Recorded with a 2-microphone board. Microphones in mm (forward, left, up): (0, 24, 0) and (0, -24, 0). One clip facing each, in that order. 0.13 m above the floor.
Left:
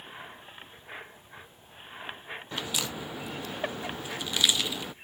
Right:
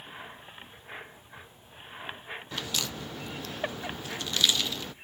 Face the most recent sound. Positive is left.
turn(degrees=15)  # may be behind; listen again after turning